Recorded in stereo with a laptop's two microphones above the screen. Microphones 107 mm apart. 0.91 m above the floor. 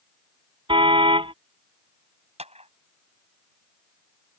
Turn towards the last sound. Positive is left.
turn(degrees=-70)  # may be behind; listen again after turning